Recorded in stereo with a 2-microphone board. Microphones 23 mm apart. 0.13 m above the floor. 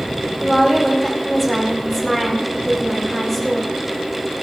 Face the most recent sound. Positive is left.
turn(degrees=10)  # may be behind; listen again after turning